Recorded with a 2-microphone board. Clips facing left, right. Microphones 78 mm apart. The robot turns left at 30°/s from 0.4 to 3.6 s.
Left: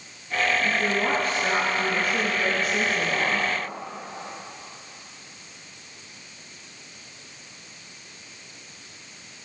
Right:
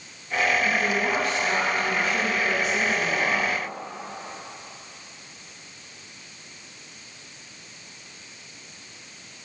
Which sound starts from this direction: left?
A woman speaking, at 0.6 s.